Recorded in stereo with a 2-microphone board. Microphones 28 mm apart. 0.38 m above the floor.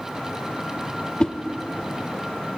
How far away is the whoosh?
About 0.6 m.